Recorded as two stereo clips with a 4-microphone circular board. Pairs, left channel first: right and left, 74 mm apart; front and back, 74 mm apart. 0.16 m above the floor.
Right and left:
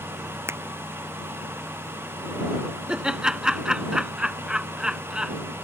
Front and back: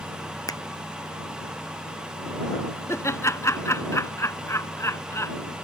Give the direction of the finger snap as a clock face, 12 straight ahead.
11 o'clock.